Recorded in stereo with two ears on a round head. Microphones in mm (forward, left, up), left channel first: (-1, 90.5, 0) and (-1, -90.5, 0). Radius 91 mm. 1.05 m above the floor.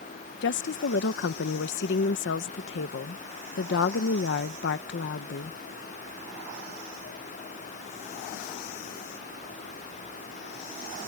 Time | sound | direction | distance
0.4 | a woman speaking | 55° left (ahead or behind) | ?